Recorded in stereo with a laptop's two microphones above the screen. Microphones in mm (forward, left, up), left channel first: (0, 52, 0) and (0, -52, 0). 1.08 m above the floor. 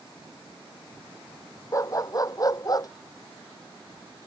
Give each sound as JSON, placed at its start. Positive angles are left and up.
{"t": 1.7, "sound": "a dog barking", "side_deg": 35}